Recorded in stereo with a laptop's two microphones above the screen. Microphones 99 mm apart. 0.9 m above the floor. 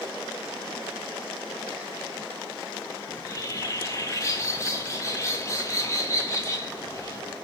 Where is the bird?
30° left (ahead or behind), 1.3 m.